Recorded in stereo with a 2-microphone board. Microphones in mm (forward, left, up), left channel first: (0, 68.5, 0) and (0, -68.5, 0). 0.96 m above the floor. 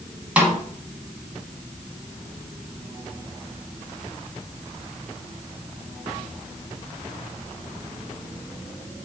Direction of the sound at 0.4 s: 10° right (ahead or behind).